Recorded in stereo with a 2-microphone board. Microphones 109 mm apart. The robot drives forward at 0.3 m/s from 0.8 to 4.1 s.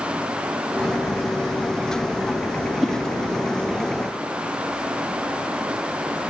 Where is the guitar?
I don't hear a guitar.